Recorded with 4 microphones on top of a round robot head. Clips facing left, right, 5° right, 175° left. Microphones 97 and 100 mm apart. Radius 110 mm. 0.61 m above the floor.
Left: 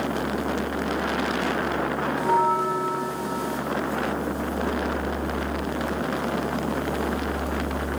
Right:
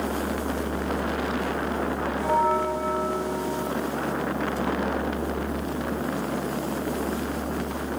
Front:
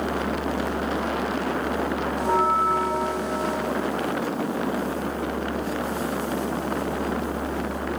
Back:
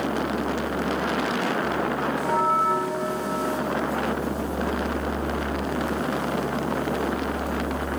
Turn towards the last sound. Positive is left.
turn(degrees=60)